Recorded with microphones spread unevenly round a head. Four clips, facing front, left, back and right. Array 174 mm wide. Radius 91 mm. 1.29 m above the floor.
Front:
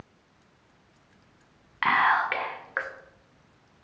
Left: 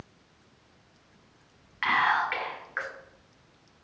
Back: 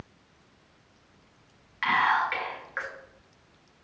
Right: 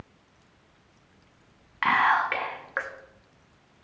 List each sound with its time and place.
1.8 s whispering: 45° right, 0.8 m